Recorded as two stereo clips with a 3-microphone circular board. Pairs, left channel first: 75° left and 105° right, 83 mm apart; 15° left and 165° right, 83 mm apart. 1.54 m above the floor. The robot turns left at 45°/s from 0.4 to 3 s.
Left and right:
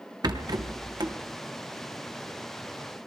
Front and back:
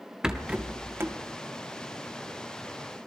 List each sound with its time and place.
0.2 s a rattle: 85° right, 0.8 m; by 1.2 s 120° right, 0.8 m